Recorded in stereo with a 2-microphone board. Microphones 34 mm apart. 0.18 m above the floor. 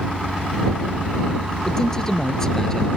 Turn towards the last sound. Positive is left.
turn(degrees=15)  # may be behind; listen again after turning